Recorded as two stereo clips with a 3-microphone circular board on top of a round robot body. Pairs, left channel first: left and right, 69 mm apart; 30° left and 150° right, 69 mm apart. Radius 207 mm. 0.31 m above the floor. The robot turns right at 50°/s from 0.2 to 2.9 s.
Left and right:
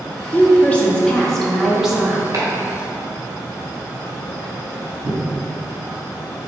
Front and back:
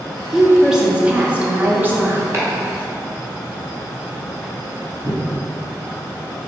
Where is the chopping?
110° right, 2.0 m; by 6.5 s 80° right, 2.0 m.